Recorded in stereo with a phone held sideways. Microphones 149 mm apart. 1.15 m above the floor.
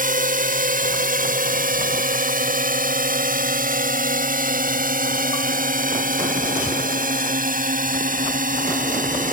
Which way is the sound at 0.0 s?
75° right (ahead or behind).